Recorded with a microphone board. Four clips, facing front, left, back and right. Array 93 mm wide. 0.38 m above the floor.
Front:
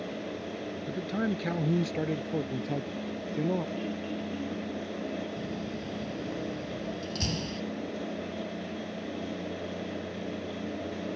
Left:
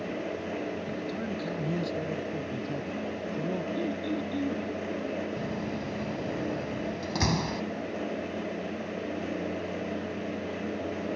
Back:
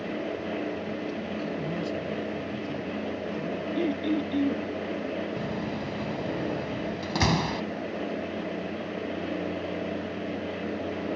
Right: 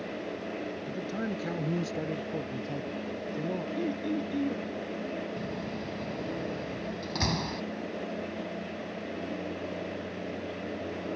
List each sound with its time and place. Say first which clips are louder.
0.9 s a man speaking: even, front 1 dB; 20° right; by 3.6 s 5° right
3.8 s throat clearing: even, back 8 dB; 170° right
5.4 s a door slam: left 3 dB, back 4 dB; 175° left